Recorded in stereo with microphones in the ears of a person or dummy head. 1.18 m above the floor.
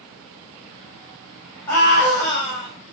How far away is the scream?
About 5 m.